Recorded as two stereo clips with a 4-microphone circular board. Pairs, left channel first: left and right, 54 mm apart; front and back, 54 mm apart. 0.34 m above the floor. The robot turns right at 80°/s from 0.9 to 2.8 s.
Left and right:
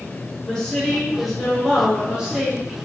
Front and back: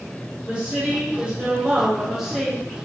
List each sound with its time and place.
0.5 s a woman speaking: 145° left, 0.9 m; by 2.8 s 65° right, 0.9 m